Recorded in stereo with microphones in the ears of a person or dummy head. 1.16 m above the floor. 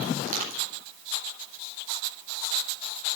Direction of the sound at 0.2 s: 55° right (ahead or behind).